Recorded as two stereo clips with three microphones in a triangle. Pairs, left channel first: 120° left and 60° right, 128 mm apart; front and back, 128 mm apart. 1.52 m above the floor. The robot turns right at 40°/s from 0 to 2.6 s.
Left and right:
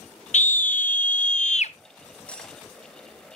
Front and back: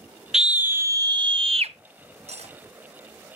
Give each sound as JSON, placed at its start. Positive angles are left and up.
{"t": 0.3, "sound": "a scream", "azimuth_deg": 95, "distance_m": 0.5}
{"t": 2.3, "sound": "cutlery clinking", "azimuth_deg": -160, "distance_m": 1.3}